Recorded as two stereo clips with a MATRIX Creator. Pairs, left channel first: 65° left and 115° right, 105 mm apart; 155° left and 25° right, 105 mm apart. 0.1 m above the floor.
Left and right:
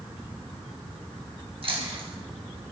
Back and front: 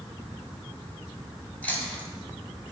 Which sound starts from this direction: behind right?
Chewing, at 1.6 s.